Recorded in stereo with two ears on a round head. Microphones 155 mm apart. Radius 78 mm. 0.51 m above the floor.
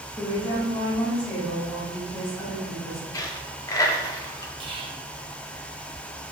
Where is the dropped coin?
20° left (ahead or behind), 0.5 m.